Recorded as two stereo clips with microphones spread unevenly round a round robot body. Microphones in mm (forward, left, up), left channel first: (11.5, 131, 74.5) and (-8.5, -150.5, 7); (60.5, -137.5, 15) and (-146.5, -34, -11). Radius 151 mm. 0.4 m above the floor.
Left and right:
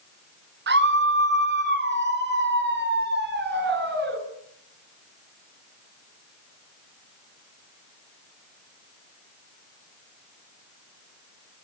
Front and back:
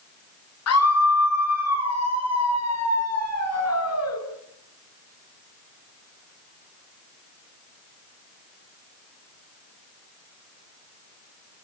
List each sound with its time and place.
0.7 s a scream: 40° right, 6.5 m